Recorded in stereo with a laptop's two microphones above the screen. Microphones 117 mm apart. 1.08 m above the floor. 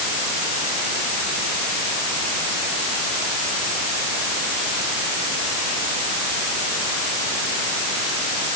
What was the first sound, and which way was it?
Only background noise.